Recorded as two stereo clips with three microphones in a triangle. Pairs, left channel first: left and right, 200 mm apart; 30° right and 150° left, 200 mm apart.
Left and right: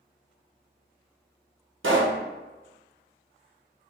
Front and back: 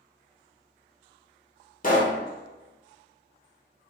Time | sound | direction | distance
1.8 | a pop | 80° right | 0.8 m